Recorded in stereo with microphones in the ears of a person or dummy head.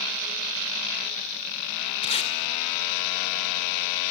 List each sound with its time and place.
2.0 s tape being pulled: 35° left (ahead or behind), 1.7 m